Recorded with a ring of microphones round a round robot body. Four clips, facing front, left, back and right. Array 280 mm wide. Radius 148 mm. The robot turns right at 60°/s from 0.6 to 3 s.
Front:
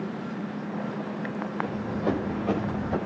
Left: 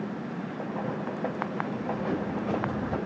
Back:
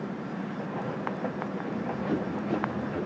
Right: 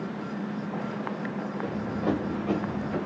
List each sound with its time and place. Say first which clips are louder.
1.6 s running footsteps: right 2 dB, front 4 dB; 60° right, 7 m; by 3.0 s 30° left, 7 m